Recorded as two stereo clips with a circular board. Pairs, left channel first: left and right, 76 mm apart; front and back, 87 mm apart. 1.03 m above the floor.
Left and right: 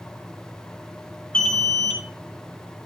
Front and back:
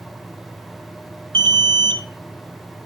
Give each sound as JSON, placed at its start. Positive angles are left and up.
{"t": 1.3, "sound": "an alarm", "azimuth_deg": 165, "distance_m": 5.0}